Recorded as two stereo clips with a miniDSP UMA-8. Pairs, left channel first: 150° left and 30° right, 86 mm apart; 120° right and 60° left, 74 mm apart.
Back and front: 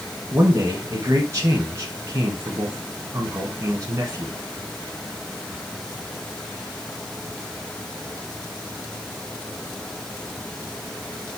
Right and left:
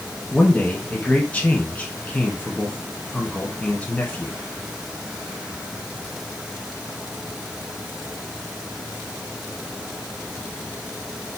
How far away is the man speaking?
About 1.3 m.